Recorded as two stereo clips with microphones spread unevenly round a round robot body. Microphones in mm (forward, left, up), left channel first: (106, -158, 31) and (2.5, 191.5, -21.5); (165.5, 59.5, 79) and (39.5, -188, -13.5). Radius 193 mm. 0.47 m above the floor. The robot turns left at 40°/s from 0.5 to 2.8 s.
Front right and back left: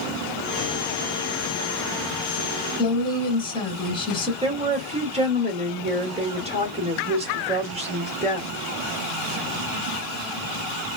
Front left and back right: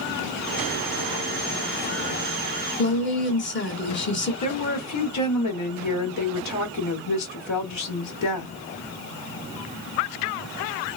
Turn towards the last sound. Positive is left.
turn(degrees=50)